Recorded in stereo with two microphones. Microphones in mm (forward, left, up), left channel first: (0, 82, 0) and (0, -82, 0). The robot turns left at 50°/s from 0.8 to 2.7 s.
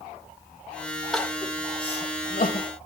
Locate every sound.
1.1 s crying: centre (ahead or behind), 1.5 m; by 2.7 s 65° left (ahead or behind), 1.5 m